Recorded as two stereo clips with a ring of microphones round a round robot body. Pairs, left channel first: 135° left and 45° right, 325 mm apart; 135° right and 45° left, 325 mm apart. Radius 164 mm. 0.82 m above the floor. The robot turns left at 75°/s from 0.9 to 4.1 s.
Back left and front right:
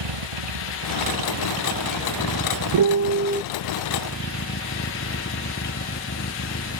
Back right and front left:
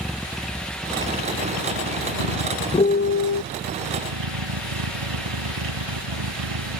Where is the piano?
60° right; by 3.4 s 115° right.